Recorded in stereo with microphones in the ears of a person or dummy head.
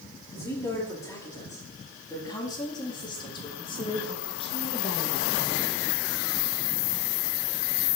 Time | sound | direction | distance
0.3 | a woman speaking | 20° left (ahead or behind) | 4 m